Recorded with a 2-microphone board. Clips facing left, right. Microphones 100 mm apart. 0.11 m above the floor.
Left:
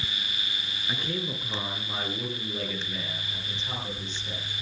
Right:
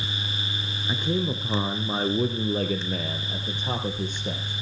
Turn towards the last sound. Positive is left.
turn(degrees=-60)  # may be behind; listen again after turning